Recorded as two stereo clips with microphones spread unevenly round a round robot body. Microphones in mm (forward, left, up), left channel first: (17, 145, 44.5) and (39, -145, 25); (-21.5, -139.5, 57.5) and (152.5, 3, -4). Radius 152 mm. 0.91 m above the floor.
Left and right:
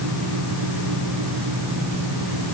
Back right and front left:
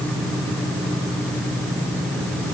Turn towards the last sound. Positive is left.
No sound to turn to.